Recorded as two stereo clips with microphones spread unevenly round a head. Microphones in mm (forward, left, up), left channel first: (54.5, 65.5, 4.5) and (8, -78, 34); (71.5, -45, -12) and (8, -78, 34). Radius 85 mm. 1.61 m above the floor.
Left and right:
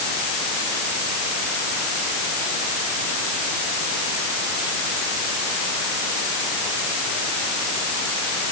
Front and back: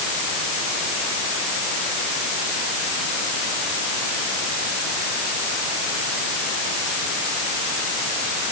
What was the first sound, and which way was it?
Only background noise.